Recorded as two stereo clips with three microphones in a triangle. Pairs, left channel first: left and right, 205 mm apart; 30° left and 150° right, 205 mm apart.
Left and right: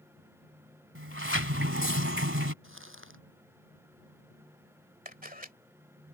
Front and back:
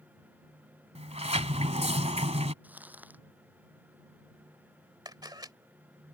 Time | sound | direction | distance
0.9 | a sliding door | 90° right | ?
2.6 | crumpling | 65° right | ?
5.0 | a camera shutter | 90° right | ?